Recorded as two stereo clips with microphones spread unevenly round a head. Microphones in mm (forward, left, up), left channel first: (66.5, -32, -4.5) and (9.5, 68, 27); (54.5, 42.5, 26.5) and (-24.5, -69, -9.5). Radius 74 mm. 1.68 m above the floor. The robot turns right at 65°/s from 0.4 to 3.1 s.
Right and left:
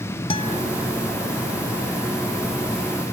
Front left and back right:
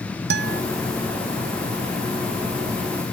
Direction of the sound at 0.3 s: 120° right.